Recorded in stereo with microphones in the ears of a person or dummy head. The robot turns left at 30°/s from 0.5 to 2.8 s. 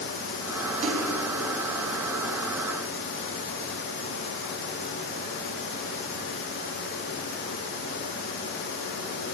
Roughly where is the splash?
Right.